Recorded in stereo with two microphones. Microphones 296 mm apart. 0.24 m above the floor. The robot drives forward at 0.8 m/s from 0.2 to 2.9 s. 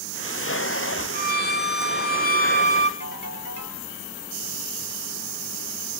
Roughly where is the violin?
Left.